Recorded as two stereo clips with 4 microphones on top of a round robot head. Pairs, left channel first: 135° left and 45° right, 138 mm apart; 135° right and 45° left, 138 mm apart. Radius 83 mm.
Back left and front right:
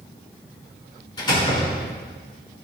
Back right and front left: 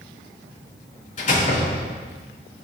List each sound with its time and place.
1.2 s a door slam: 170° right, 4 m